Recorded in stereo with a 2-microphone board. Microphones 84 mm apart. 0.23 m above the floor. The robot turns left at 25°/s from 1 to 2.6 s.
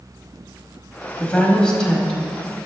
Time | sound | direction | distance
1.2 | a woman speaking | 15° left (ahead or behind) | 1.1 m